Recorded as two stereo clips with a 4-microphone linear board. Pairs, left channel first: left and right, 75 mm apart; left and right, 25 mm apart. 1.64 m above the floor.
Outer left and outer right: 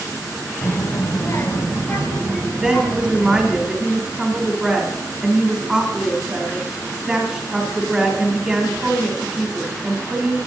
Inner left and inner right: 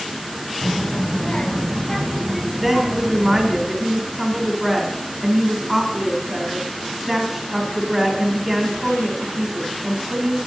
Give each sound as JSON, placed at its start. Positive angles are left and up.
{"t": 0.6, "sound": "a child speaking", "side_deg": 50, "distance_m": 0.7}
{"t": 2.6, "sound": "a woman speaking", "side_deg": 0, "distance_m": 2.5}